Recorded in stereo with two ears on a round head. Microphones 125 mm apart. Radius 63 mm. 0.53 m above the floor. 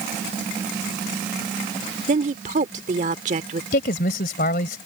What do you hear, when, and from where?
2.1 s a woman speaking: 55° right (ahead or behind)
3.7 s a man speaking: 70° left (ahead or behind)